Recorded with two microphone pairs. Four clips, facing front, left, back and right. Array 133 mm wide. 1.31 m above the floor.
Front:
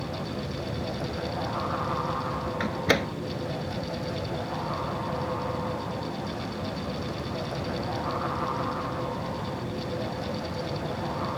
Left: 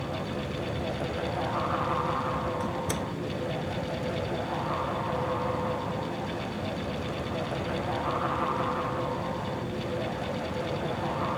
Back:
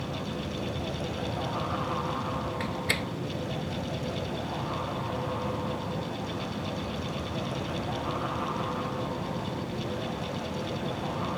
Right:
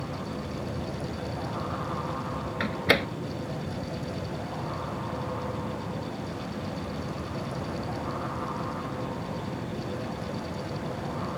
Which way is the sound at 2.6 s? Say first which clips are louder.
Right 4 dB, front 6 dB; 50° right.